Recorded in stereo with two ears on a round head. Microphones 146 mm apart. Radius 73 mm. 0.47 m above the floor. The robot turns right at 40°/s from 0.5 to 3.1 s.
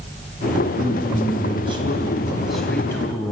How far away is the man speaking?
About 4 m.